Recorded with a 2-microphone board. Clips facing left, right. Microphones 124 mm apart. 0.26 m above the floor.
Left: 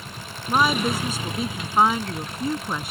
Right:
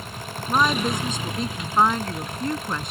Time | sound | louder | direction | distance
0.5 | a woman speaking | left 1 dB | 5° left (ahead or behind) | ?